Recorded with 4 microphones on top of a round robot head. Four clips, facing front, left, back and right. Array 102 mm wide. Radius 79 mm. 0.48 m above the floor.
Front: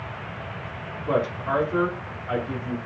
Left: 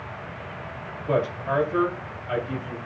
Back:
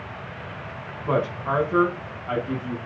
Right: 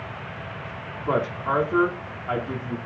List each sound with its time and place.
1.1 s a woman speaking: 130° right, 5 m